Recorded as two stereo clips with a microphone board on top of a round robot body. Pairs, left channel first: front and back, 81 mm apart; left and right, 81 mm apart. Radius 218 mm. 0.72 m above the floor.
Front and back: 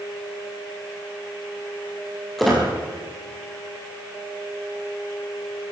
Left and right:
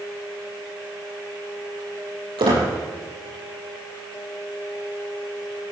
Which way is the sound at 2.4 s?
90° right.